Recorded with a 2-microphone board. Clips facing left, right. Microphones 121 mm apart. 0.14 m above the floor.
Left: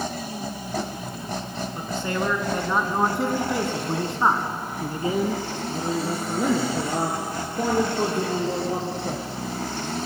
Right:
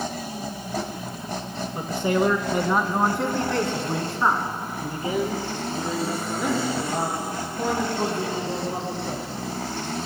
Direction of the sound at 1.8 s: 20° right (ahead or behind).